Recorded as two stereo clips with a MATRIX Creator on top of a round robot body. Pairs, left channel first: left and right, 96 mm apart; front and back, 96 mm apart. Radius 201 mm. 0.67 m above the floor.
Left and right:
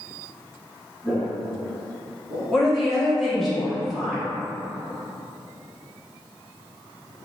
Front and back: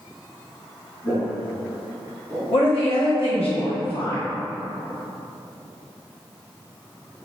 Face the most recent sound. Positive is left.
turn(degrees=0)